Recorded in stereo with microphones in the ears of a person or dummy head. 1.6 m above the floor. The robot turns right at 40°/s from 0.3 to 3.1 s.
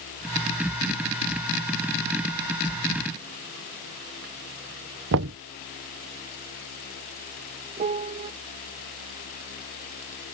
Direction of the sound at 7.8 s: 35° right (ahead or behind).